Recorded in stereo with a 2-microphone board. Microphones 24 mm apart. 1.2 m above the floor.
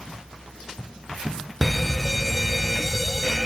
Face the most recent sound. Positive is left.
turn(degrees=5)  # may be behind; listen again after turning